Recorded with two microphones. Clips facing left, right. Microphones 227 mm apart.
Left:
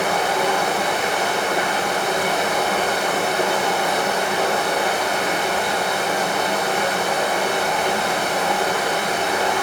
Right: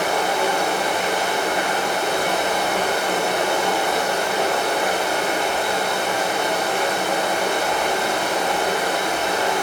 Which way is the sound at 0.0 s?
80° left.